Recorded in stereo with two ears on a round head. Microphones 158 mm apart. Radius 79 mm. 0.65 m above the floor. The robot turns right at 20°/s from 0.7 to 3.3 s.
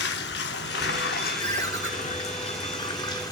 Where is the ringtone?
25° left (ahead or behind), 1.5 m; by 1.9 s 15° left (ahead or behind), 1.5 m.